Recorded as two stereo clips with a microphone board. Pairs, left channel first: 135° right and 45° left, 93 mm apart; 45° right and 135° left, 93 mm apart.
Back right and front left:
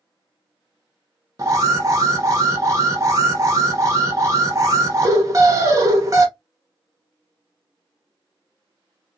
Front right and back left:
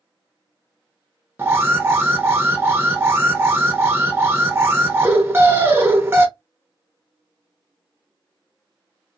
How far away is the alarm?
About 1.0 m.